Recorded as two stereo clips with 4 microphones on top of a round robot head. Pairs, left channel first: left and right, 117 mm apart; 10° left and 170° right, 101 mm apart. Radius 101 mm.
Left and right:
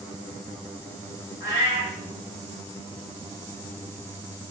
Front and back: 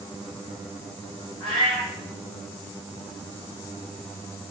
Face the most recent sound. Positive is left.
turn(degrees=165)